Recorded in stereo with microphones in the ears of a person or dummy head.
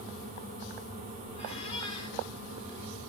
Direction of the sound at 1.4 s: 30° left (ahead or behind).